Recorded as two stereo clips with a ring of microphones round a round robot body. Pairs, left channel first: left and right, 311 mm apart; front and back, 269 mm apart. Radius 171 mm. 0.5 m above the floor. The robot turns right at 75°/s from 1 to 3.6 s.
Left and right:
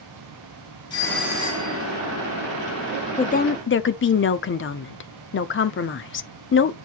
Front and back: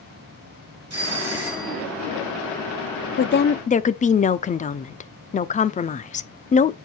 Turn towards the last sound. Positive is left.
turn(degrees=55)